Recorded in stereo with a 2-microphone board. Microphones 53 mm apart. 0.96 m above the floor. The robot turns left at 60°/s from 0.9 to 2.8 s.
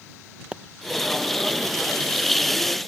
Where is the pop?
15° right (ahead or behind).